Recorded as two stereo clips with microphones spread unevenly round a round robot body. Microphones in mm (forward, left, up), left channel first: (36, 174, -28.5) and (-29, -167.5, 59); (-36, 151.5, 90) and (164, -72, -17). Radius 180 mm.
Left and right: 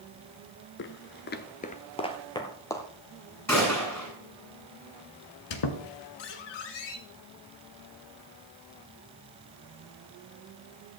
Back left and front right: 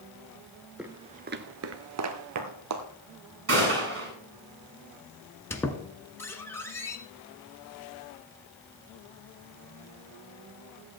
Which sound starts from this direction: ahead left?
A squeak, at 5.5 s.